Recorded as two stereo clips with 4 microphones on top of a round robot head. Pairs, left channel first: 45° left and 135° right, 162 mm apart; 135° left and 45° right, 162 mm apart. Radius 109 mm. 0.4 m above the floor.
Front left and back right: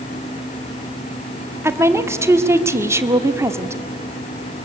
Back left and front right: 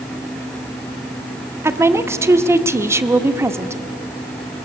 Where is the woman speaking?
90° right, 1.2 m.